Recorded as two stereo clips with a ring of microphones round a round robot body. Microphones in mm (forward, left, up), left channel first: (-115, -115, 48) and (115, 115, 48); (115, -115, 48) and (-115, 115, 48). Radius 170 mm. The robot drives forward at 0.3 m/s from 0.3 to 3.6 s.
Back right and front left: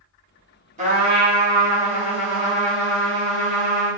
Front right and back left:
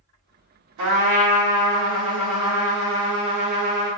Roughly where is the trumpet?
Left.